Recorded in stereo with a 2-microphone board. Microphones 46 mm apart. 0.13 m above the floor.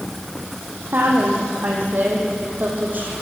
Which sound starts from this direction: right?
A woman speaking, at 0.9 s.